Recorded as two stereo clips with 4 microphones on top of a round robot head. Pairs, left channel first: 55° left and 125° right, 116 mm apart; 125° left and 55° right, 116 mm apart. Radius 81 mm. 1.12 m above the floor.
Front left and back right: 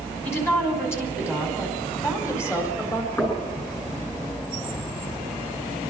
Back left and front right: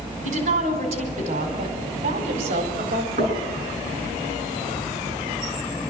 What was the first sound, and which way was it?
A woman speaking, 20° right.